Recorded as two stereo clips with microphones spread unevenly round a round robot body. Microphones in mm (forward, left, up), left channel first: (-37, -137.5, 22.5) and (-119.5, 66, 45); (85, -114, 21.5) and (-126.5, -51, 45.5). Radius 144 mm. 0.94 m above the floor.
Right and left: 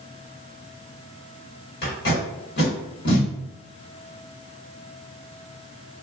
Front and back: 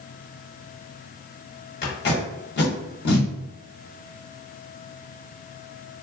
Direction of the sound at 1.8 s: 40° right.